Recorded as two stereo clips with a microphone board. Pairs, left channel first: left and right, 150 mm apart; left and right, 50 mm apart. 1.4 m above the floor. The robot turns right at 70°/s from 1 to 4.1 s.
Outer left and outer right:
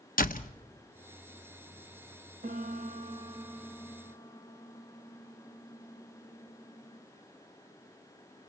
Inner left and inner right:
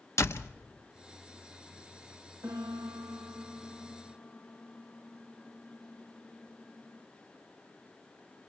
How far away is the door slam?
About 0.9 m.